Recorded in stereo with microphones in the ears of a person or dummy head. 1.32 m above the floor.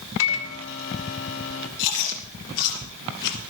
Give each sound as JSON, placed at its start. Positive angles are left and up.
{"t": 0.2, "sound": "a microwave", "side_deg": 75, "distance_m": 2.0}
{"t": 1.8, "sound": "chewing", "side_deg": 70, "distance_m": 5.5}